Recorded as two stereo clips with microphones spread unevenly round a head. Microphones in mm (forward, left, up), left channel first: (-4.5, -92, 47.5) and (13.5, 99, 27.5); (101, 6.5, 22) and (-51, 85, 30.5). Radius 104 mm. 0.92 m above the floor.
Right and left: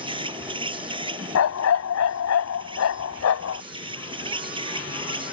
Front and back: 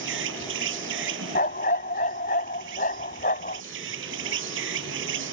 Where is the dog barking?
85° right.